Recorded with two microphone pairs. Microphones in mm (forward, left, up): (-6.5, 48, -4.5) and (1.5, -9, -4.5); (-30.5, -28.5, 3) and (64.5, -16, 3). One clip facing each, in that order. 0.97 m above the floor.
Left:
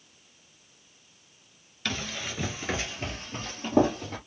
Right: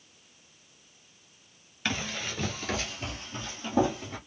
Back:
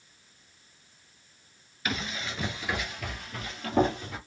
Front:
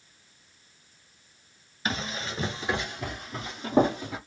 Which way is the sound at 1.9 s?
15° right.